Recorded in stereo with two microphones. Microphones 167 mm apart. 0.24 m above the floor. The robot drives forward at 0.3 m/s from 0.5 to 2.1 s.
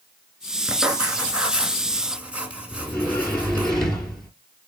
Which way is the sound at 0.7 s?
5° right (ahead or behind).